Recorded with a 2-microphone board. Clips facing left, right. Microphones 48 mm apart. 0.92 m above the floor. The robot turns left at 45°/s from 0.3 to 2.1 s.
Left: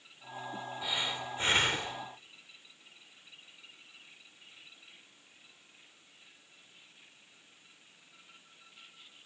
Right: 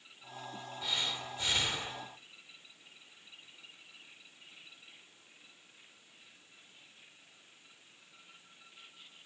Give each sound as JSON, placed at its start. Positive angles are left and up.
{"t": 0.8, "sound": "breathing", "azimuth_deg": 170, "distance_m": 3.0}